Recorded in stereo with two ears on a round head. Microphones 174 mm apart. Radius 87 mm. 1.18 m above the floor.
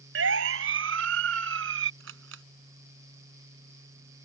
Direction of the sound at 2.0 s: 75° right (ahead or behind).